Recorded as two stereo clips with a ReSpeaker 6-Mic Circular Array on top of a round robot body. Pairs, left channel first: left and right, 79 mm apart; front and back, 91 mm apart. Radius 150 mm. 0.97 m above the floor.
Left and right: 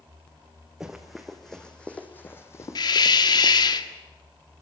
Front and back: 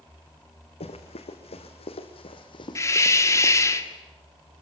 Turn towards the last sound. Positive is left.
turn(degrees=60)